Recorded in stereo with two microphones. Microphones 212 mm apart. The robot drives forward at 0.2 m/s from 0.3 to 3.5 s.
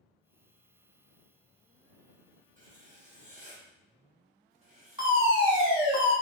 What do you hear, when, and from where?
2.6 s writing: 40° right (ahead or behind), 1.2 m; by 5.8 s 35° right (ahead or behind), 1.3 m
5.0 s a fire alarm: 20° right (ahead or behind), 1.7 m